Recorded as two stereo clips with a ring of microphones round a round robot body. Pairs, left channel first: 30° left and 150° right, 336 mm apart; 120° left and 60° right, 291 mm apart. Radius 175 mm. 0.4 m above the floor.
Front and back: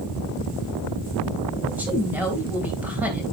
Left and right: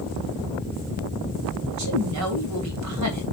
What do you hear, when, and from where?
1.7 s a woman speaking: 65° right, 2.5 m